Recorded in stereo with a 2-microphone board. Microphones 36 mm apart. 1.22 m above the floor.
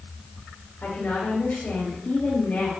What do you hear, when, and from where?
0.8 s a woman speaking: 40° left (ahead or behind), 5.5 m